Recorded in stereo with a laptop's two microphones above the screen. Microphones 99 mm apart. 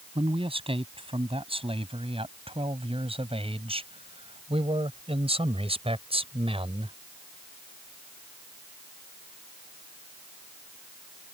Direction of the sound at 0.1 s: 70° right (ahead or behind).